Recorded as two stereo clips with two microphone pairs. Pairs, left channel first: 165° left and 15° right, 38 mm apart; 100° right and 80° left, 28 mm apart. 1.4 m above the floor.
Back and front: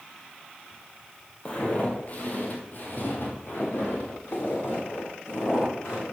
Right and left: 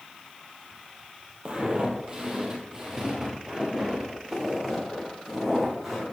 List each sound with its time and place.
1.4 s footsteps: 120° left, 1.9 m; by 6.0 s 165° left, 4 m